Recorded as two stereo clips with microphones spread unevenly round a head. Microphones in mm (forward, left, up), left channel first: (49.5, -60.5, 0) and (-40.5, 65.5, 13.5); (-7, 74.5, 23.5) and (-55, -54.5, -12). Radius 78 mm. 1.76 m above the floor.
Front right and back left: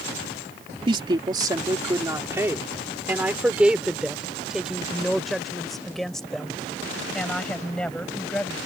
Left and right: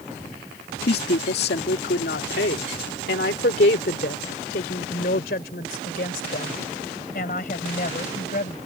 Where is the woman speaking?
65° left; by 8.6 s 30° left.